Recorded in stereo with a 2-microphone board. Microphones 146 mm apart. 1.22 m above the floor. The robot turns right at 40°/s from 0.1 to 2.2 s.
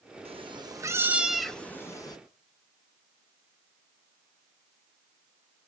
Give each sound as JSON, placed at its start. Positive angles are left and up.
{"t": 0.2, "sound": "a cat meowing", "azimuth_deg": -45, "distance_m": 0.9}